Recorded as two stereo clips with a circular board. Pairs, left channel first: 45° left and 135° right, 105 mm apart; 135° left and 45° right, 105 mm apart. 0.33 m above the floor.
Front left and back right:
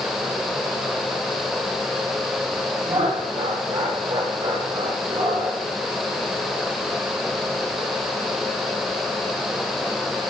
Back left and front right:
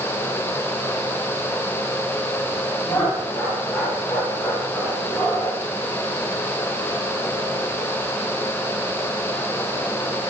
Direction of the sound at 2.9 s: 155° right.